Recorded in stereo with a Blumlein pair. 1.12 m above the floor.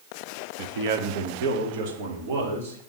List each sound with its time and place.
0.6 s a man speaking: 55° right, 0.8 m; by 2.8 s 50° right, 2.5 m